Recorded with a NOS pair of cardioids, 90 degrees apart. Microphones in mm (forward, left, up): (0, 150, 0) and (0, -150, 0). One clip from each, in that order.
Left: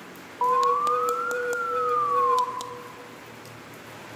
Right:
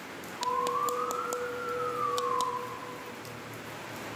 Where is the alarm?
60° left, 0.6 m.